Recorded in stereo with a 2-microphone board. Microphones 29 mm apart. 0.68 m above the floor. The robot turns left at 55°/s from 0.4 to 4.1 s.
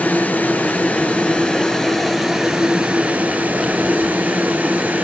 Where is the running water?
90° left, 4.5 m; by 5.0 s 115° right, 4.5 m.